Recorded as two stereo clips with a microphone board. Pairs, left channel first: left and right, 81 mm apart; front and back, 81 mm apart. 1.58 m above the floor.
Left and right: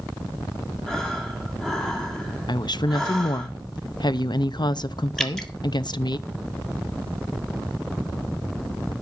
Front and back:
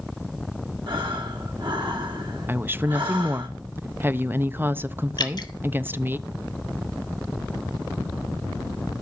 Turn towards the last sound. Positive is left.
turn(degrees=5)